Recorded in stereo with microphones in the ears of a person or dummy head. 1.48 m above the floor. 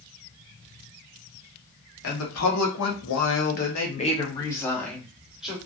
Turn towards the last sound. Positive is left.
turn(degrees=-5)  # may be behind; listen again after turning